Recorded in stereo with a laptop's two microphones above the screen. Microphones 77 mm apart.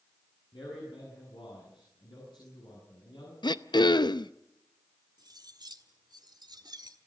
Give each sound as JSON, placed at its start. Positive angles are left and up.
{"t": 0.5, "sound": "a man speaking", "side_deg": 85, "distance_m": 9.5}
{"t": 3.4, "sound": "throat clearing", "side_deg": 80, "distance_m": 0.7}
{"t": 5.2, "sound": "cutlery clinking", "side_deg": -70, "distance_m": 1.6}